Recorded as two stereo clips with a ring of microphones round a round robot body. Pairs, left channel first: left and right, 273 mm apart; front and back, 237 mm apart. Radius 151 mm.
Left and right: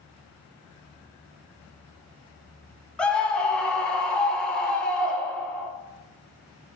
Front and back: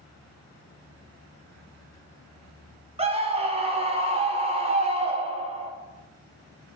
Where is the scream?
170° left, 0.7 m.